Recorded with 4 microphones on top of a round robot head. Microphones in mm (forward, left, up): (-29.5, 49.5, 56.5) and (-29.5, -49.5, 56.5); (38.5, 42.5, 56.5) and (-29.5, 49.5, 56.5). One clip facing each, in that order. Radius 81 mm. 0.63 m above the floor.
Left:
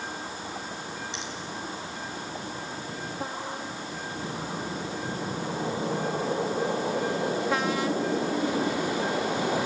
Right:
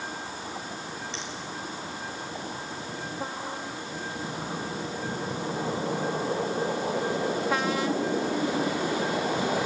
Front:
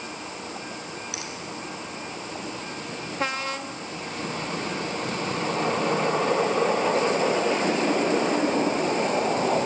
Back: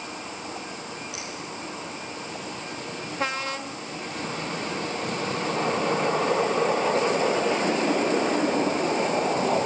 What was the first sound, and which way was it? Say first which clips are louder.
A finger snap: even, even; 15° left.